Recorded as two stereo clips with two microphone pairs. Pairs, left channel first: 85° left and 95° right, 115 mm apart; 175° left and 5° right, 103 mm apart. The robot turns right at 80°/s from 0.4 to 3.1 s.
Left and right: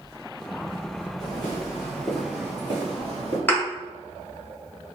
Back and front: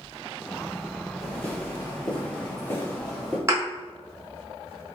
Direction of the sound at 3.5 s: 25° left.